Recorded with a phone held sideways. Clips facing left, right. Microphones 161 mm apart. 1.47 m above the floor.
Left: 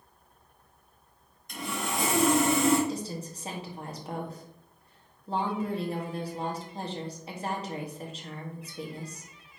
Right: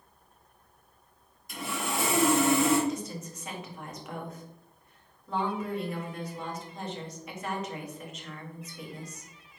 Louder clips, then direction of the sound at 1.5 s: Even; 5° right (ahead or behind).